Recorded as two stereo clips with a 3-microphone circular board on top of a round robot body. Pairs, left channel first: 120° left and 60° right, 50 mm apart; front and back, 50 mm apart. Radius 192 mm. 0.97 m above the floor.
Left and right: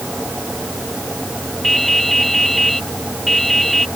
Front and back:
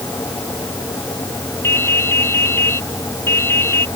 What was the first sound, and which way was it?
Dripping, 35° left.